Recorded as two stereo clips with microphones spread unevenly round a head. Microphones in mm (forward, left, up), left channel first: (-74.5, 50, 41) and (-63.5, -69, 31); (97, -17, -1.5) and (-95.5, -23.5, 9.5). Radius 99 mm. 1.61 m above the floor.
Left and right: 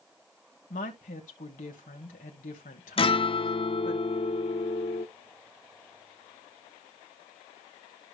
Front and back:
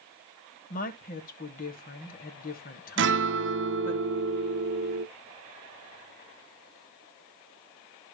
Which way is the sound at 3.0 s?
145° left.